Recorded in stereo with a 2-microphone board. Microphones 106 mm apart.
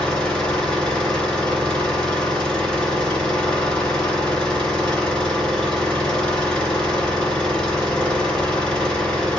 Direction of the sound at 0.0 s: 5° left (ahead or behind).